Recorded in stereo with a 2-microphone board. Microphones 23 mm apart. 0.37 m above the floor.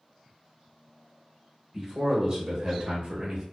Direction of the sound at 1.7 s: 15° right (ahead or behind).